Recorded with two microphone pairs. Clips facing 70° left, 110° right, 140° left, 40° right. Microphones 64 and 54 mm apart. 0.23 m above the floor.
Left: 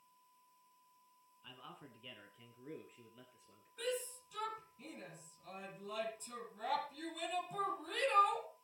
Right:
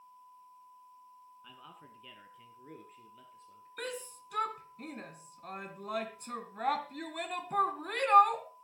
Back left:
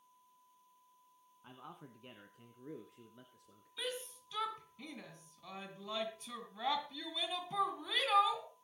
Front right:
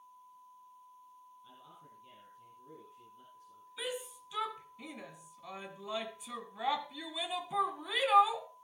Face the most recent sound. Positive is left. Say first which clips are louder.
# even, front right 3 dB
turn(degrees=-115)